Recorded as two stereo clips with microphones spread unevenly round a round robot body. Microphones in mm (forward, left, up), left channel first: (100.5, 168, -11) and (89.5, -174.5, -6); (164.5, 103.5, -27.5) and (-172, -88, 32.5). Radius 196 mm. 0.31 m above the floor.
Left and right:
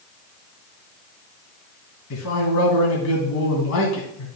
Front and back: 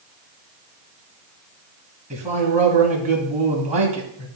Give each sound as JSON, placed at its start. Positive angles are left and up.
{"t": 2.1, "sound": "a man speaking", "azimuth_deg": 135, "distance_m": 2.0}